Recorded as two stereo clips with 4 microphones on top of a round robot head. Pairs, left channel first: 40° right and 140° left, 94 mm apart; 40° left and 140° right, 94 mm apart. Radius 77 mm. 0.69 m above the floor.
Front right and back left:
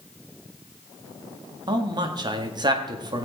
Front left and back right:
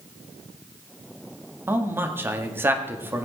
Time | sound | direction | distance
1.7 | a man speaking | 160° left | 1.7 m